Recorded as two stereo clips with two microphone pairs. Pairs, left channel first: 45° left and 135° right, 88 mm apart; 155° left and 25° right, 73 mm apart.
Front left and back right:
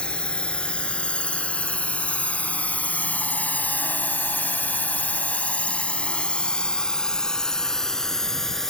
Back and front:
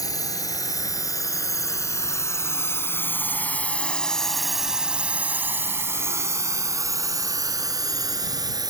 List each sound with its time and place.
0.0 s a drone: 125° left; by 8.7 s 40° right